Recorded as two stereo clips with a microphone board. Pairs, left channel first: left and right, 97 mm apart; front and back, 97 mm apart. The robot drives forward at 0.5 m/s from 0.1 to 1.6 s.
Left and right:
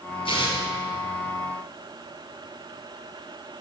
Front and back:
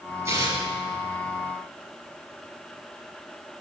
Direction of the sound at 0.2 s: 120° left.